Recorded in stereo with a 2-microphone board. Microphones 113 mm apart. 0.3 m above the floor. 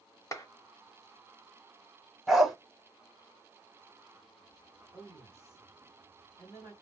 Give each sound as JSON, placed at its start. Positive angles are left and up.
{"t": 0.3, "sound": "a clap", "side_deg": 30, "distance_m": 0.9}
{"t": 2.3, "sound": "a dog barking", "side_deg": 0, "distance_m": 0.7}
{"t": 4.9, "sound": "a woman speaking", "side_deg": 25, "distance_m": 1.5}